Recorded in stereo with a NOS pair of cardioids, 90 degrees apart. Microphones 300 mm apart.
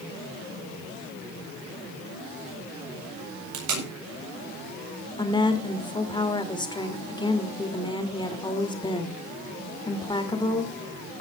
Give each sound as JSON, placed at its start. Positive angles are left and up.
{"t": 3.5, "sound": "tape being pulled", "azimuth_deg": -70, "distance_m": 5.5}
{"t": 5.2, "sound": "a woman speaking", "azimuth_deg": 15, "distance_m": 3.0}